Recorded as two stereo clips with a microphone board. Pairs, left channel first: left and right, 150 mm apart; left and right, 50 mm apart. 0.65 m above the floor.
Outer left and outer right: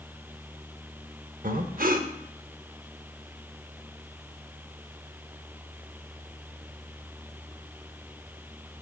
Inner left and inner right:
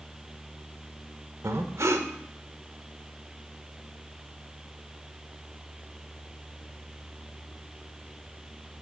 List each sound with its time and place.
1.4 s breathing: 70° right (ahead or behind), 0.6 m